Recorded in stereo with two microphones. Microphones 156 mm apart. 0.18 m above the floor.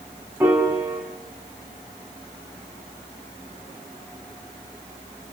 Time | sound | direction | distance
0.4 | a piano | 15° right (ahead or behind) | 5.5 m